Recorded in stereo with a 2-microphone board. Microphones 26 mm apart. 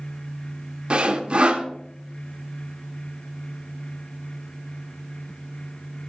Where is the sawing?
45° right (ahead or behind), 1.0 m.